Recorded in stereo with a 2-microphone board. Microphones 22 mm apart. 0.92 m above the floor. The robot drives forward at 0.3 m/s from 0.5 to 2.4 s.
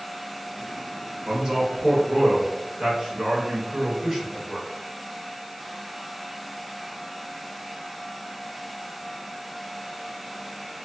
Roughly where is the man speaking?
Right.